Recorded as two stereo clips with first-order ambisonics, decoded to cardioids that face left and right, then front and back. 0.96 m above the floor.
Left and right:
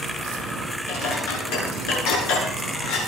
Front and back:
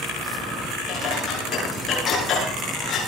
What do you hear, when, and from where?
0.9 s dishes clattering: 70° left, 9.5 m